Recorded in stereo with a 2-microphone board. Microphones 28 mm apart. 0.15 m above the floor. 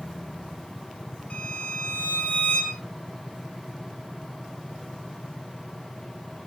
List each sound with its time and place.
1.3 s a violin: 50° left (ahead or behind), 4 m